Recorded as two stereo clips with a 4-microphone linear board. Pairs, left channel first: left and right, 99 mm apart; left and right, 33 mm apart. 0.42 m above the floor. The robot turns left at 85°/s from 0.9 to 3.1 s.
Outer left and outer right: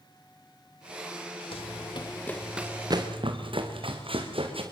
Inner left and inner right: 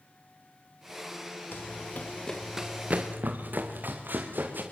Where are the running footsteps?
75° left (ahead or behind), 2.5 m; by 4.6 s 75° right (ahead or behind), 5.5 m.